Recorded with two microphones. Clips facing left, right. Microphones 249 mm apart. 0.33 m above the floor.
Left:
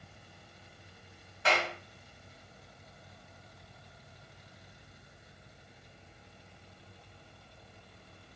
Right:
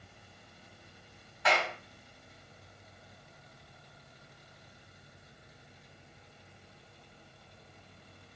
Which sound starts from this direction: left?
A clap, at 1.4 s.